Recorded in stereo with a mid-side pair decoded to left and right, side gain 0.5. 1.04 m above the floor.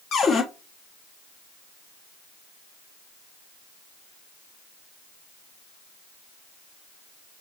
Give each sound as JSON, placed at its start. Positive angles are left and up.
{"t": 0.1, "sound": "a cupboard door", "azimuth_deg": 55, "distance_m": 1.0}